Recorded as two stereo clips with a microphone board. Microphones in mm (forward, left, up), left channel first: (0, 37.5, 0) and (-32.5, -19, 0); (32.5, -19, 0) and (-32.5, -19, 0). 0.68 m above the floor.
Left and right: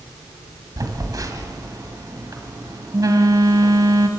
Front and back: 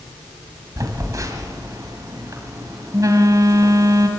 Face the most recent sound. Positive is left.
turn(degrees=-145)